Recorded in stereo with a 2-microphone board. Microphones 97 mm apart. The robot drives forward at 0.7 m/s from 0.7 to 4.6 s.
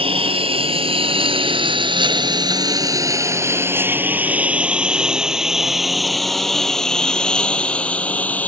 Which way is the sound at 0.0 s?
80° right.